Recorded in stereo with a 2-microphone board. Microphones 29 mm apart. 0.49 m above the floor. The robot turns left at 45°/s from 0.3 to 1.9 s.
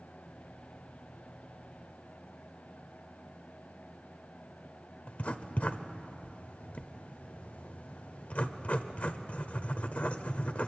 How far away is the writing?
About 1.0 m.